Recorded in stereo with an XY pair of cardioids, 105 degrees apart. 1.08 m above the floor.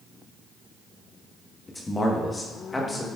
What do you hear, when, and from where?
1.7 s a man speaking: 20° left, 1.1 m